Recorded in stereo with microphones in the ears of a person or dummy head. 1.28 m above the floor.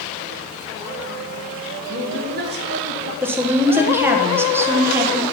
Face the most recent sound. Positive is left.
turn(degrees=-10)  # may be behind; listen again after turning